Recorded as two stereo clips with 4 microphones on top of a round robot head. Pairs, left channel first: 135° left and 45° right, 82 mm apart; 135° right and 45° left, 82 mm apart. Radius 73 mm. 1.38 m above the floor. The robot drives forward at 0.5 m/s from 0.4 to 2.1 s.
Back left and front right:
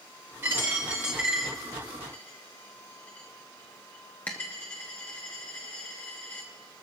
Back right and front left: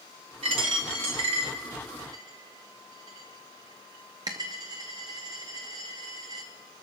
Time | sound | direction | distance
0.4 | a dropped coin | 25° left | 1.3 m